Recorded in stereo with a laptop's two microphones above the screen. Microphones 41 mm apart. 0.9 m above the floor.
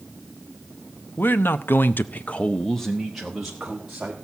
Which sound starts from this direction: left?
A man speaking, at 1.2 s.